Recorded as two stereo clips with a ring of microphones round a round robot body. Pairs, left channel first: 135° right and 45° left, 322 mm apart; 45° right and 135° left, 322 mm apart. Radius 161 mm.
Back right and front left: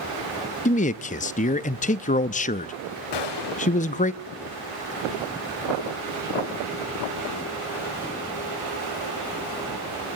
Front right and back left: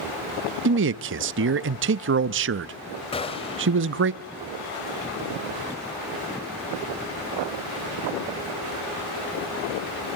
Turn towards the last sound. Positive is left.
turn(degrees=-120)